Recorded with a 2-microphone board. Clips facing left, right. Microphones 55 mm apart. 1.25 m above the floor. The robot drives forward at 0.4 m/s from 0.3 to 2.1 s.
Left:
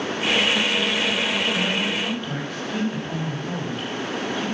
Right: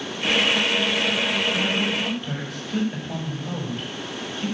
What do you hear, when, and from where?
1.5 s a man speaking: centre (ahead or behind), 7 m